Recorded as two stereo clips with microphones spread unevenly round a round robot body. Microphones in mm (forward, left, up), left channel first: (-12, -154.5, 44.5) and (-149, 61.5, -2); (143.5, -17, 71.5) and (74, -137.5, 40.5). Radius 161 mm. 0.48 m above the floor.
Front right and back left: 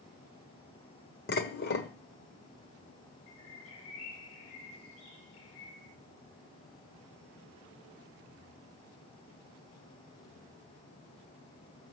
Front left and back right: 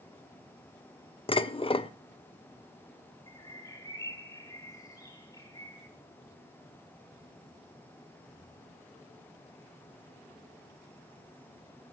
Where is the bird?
5° right, 6 m.